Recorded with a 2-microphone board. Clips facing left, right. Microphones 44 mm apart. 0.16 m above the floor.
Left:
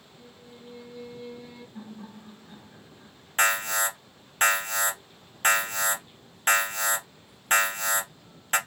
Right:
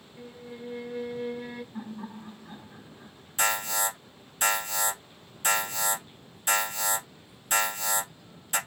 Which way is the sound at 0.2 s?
55° right (ahead or behind).